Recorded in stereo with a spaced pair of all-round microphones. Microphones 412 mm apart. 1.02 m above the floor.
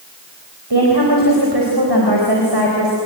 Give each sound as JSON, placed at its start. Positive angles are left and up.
{"t": 0.7, "sound": "a woman speaking", "side_deg": -70, "distance_m": 4.0}